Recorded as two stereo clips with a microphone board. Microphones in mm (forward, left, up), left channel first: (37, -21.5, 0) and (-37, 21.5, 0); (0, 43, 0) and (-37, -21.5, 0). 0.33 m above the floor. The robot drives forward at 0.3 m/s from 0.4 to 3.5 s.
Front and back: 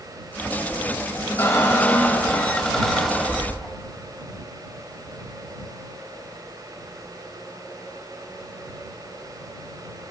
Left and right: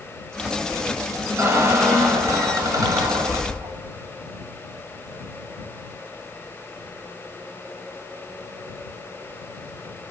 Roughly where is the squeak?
Right.